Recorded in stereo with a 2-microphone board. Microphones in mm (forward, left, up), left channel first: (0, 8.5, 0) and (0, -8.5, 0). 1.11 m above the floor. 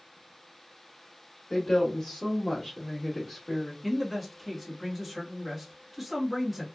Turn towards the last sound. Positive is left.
turn(degrees=-10)  # may be behind; listen again after turning